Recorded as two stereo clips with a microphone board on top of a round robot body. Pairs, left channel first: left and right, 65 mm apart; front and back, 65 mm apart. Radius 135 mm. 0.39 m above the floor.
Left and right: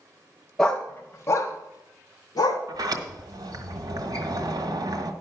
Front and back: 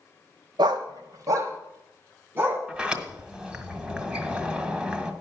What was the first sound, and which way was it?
A dog barking, 175° left.